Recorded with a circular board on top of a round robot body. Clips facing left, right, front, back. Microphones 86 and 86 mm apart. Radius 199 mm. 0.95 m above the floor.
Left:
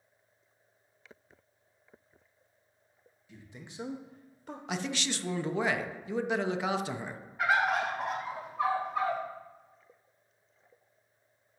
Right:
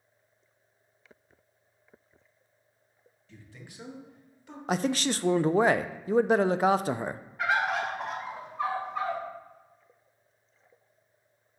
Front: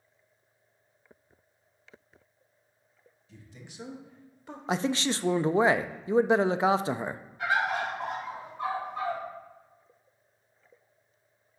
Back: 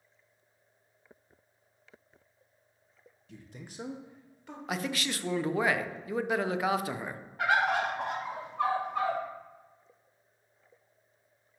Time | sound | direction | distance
3.3 | a man speaking | 165° left | 1.3 m
4.7 | a man speaking | 55° right | 0.5 m
7.4 | a bird | 175° left | 1.5 m